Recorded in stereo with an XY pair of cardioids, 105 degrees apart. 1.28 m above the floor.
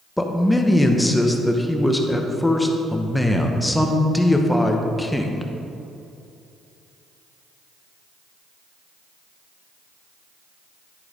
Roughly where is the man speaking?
Ahead.